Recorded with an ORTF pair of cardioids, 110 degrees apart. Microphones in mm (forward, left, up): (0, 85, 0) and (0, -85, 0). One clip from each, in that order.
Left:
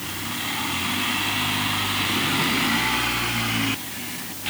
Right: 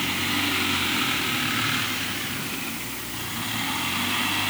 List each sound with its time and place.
Only background noise.